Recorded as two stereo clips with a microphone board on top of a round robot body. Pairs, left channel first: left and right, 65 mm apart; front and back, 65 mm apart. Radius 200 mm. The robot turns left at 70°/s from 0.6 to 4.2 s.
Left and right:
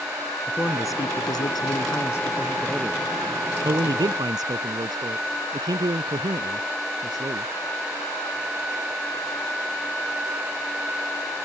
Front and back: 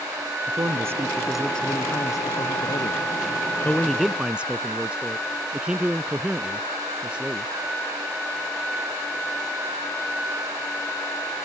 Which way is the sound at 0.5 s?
145° left.